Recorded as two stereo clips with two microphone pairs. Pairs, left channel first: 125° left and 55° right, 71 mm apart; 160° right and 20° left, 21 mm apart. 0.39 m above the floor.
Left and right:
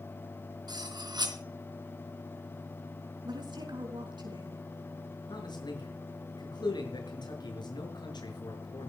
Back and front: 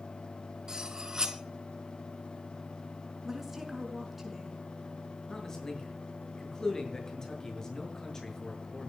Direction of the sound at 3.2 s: 55° right.